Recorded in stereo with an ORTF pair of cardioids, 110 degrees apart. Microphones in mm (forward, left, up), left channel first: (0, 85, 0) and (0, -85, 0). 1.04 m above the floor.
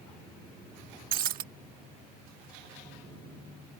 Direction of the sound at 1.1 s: 60° right.